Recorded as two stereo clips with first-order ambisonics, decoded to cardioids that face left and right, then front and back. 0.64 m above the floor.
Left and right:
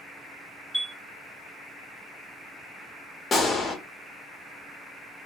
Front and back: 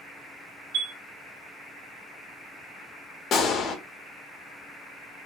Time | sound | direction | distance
0.7 | a chime | 175° right | 1.8 m
3.3 | a gunshot | 30° left | 0.6 m